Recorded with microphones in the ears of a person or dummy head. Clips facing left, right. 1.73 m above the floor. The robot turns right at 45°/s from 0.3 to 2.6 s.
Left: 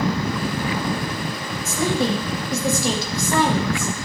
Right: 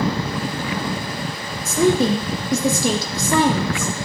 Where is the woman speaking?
125° right, 0.9 m; by 3.9 s 85° right, 0.9 m.